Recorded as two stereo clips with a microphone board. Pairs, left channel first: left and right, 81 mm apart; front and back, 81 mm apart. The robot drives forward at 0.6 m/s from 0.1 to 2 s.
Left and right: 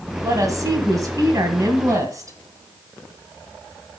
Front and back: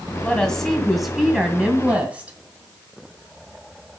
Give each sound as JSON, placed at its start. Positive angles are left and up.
{"t": 0.2, "sound": "a woman speaking", "azimuth_deg": -75, "distance_m": 2.0}